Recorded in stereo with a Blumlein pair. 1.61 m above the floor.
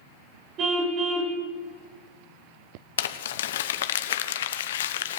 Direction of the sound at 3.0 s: 60° left.